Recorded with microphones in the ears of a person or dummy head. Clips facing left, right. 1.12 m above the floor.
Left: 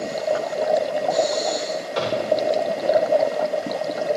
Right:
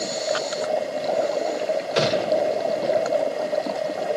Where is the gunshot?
30° right (ahead or behind), 1.3 m.